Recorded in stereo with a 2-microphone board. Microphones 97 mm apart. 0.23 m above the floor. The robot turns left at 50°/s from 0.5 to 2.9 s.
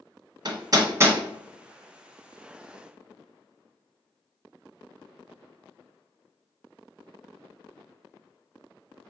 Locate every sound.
0.5 s hammering: 50° right (ahead or behind), 0.7 m; by 1.2 s 20° right (ahead or behind), 0.7 m